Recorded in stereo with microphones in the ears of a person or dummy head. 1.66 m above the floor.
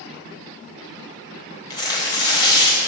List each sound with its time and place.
1.7 s tearing paper: 20° left (ahead or behind), 1.0 m